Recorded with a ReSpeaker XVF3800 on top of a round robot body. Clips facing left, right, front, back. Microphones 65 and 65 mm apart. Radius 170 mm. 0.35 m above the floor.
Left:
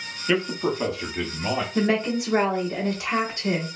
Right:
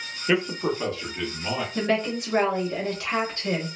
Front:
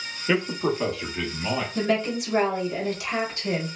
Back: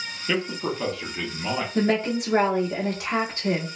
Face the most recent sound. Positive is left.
turn(degrees=160)